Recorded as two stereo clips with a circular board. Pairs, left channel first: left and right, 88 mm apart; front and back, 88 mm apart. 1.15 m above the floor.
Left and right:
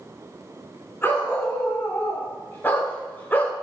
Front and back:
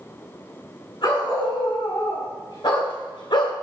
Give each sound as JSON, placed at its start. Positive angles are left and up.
{"t": 1.0, "sound": "a dog barking", "azimuth_deg": 25, "distance_m": 5.5}